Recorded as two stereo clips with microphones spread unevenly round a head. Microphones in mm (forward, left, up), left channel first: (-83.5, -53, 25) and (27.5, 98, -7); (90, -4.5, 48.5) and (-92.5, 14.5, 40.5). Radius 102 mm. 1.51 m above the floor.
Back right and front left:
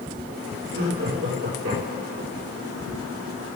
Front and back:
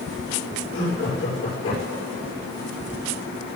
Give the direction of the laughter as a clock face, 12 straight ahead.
10 o'clock.